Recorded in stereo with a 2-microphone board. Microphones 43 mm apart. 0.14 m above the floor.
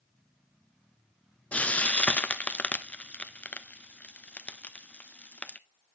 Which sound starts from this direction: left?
Frying, at 1.5 s.